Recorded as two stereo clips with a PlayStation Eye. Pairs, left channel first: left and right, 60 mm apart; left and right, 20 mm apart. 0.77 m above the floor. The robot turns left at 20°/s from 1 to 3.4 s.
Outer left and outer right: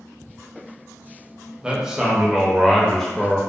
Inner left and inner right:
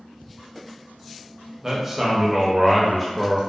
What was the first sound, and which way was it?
A man speaking, 160° right.